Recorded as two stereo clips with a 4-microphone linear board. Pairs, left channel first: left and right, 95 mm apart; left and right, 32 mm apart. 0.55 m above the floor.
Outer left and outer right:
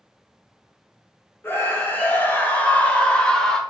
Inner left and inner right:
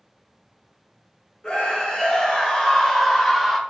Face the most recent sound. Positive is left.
turn(degrees=5)  # may be behind; listen again after turning